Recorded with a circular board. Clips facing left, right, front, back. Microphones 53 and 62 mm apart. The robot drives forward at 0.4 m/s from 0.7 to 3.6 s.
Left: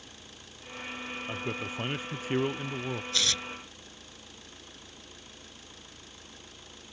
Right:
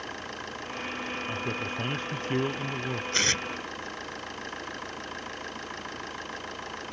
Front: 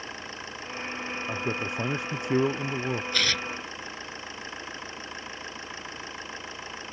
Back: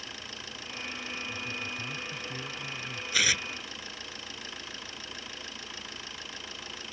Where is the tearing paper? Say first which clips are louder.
Right 5 dB, back 4 dB; 100° right; by 3.4 s 110° right.